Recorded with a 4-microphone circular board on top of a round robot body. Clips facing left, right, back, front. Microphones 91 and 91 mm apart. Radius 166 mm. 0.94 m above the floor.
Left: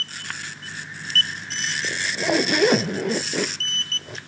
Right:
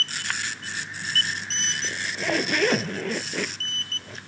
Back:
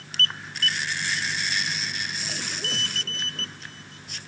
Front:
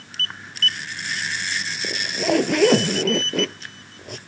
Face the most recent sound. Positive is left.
turn(degrees=15)